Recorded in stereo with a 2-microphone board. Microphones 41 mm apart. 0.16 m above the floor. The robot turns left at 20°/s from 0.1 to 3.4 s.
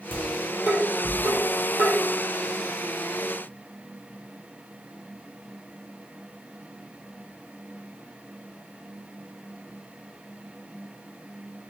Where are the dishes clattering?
50° right (ahead or behind), 2.5 m; by 1.9 s 70° right (ahead or behind), 2.5 m.